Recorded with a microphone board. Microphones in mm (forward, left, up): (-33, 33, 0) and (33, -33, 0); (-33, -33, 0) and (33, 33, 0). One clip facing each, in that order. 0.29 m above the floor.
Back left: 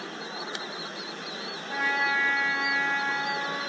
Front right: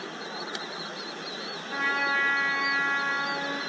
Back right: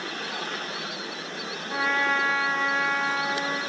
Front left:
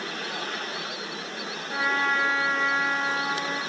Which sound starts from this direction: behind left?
A trumpet, at 1.7 s.